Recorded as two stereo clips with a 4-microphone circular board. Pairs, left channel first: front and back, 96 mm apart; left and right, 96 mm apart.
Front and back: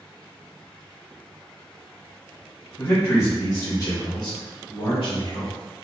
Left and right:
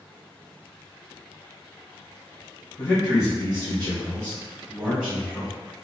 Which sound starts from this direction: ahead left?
A man speaking, at 2.8 s.